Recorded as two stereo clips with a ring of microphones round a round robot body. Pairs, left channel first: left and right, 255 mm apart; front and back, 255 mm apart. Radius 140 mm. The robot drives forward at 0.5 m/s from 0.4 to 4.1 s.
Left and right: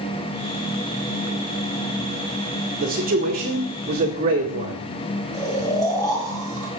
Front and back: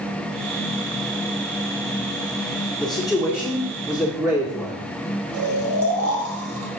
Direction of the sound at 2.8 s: 60° right.